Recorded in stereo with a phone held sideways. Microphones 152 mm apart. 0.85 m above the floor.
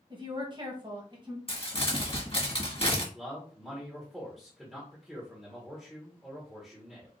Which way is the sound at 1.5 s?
40° left (ahead or behind).